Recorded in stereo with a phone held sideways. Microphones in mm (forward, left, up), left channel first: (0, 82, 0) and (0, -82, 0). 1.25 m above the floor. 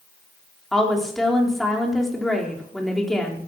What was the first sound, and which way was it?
A woman speaking, centre (ahead or behind).